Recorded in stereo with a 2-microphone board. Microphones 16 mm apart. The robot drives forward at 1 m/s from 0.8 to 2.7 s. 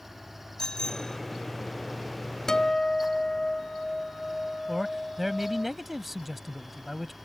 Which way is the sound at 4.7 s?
10° right (ahead or behind).